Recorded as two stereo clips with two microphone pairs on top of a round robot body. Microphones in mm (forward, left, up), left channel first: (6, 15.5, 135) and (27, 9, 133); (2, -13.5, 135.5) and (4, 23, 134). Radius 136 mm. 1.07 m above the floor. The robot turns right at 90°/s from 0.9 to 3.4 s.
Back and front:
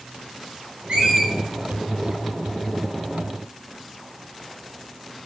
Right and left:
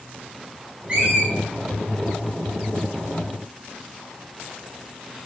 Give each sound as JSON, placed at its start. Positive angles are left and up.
{"t": 0.9, "sound": "a squeak", "azimuth_deg": 25, "distance_m": 4.5}